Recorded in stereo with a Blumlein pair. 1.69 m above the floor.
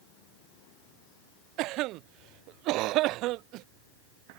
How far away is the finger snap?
I don't hear a finger snap.